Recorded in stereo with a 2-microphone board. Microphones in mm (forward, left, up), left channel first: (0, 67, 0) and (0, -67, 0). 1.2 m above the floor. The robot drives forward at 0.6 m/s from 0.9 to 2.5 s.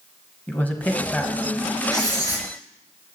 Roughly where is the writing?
Left.